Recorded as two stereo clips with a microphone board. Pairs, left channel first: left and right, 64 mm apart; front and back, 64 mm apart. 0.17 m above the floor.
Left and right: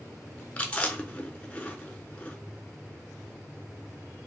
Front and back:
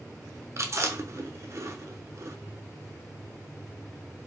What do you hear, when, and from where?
0.6 s chewing: 155° left, 0.8 m